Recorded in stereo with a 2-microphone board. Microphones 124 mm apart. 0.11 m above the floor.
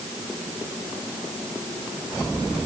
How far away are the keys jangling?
I don't hear keys jangling.